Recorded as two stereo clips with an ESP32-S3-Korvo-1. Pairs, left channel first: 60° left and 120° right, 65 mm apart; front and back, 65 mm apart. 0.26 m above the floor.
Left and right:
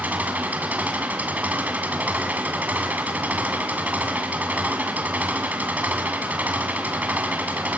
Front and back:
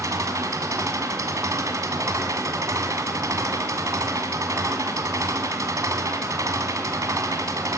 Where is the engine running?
Straight behind, 1.5 m.